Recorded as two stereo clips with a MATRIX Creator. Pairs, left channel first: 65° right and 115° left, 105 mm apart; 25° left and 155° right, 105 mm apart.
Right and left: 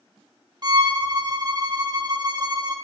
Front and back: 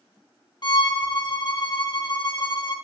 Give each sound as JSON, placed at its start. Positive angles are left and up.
{"t": 0.6, "sound": "a violin", "azimuth_deg": 65, "distance_m": 0.7}